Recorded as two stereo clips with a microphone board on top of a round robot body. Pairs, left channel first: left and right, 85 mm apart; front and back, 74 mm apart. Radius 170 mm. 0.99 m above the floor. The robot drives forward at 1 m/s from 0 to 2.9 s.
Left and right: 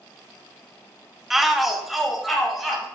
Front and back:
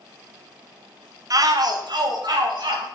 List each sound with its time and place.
1.3 s a shout: 175° right, 0.9 m; by 2.9 s straight behind, 2.5 m